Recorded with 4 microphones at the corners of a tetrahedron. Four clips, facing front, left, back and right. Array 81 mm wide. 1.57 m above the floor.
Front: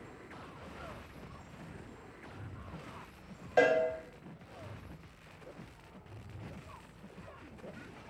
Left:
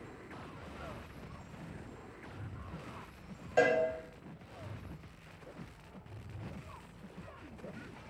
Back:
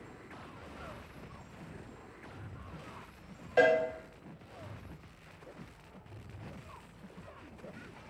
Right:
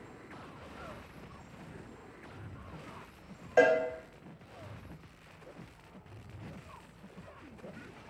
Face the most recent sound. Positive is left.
turn(degrees=-70)